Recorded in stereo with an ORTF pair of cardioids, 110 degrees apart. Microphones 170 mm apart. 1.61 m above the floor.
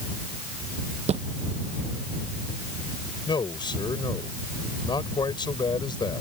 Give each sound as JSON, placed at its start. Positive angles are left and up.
{"t": 1.1, "sound": "a thud", "azimuth_deg": -40}
{"t": 3.3, "sound": "a man speaking", "azimuth_deg": 25}